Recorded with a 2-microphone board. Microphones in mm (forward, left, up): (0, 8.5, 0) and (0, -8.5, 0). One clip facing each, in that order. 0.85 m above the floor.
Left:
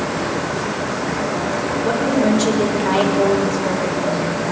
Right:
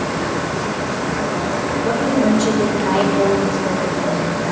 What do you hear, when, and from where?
1.8 s a woman speaking: 20° left (ahead or behind), 2.5 m